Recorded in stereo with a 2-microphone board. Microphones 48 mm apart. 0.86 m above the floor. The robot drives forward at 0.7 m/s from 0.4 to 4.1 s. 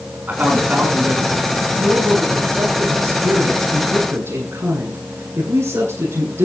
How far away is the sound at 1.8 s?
About 9 m.